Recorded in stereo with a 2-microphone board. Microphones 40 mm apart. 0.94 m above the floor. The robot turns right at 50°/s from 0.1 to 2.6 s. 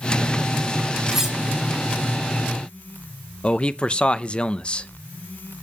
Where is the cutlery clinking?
10° right (ahead or behind), 3 m; by 1.4 s 5° left (ahead or behind), 3 m.